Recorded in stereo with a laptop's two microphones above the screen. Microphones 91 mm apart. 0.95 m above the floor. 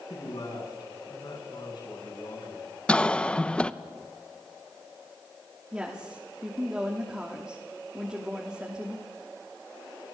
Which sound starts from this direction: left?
A man speaking, at 0.1 s.